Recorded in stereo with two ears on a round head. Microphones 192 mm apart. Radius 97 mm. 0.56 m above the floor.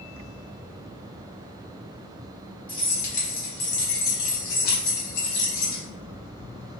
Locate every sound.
2.7 s keys jangling: 20° left (ahead or behind), 1.0 m; by 5.8 s 70° left (ahead or behind), 1.8 m